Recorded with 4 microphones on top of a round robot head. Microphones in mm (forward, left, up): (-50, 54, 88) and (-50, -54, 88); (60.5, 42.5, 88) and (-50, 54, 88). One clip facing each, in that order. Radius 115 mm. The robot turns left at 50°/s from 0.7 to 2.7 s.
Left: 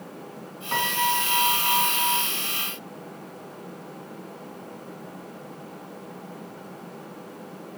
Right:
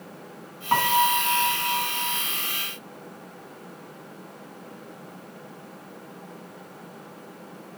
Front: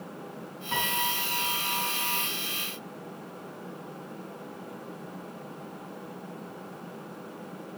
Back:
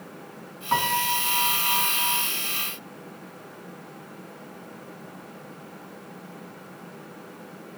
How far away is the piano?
About 2.5 m.